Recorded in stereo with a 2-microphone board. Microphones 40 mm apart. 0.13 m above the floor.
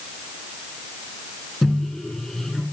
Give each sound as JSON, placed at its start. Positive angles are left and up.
{"t": 1.6, "sound": "a microwave", "side_deg": 10, "distance_m": 0.9}